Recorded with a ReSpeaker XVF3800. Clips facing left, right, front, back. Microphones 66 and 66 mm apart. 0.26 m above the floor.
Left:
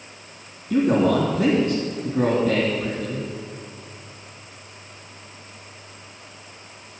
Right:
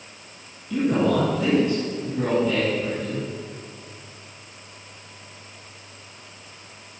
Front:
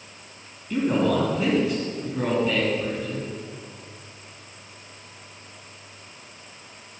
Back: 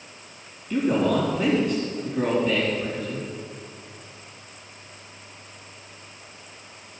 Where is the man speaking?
85° left, 2.5 m.